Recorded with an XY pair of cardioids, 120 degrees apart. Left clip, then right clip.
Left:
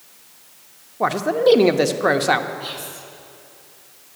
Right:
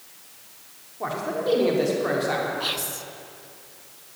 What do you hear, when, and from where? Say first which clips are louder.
1.0 s a man speaking: left 10 dB; 60° left, 0.7 m
2.6 s whispering: right 3 dB; 40° right, 0.9 m